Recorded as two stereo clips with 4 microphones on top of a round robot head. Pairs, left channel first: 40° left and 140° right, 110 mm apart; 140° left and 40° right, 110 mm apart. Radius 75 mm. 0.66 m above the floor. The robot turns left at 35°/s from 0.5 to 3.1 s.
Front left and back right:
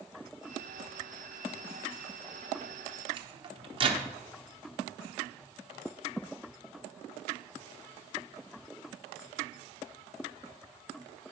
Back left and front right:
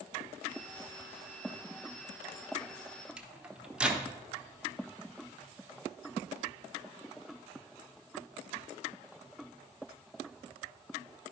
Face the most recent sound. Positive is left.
turn(degrees=-120)